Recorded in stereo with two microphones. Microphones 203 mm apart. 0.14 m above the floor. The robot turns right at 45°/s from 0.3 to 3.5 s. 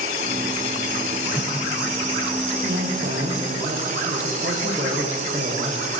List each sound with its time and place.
1.3 s a whoosh: 20° right (ahead or behind), 4 m; by 1.5 s 10° right (ahead or behind), 4 m
2.6 s a man speaking: 80° right, 9.5 m; by 5.9 s 40° right, 9.5 m